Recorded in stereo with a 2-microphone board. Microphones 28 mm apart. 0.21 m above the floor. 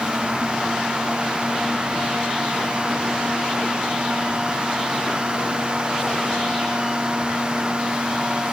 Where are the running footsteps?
No running footsteps in this recording.